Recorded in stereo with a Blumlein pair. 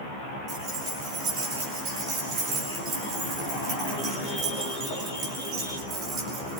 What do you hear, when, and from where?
0.5 s keys jangling: 30° right, 6 m